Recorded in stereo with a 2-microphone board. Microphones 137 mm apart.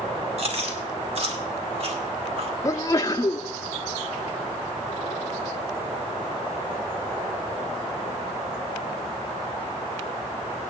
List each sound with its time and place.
0.4 s chewing: 50° right (ahead or behind), 2.0 m
2.6 s a sneeze: 25° left (ahead or behind), 0.8 m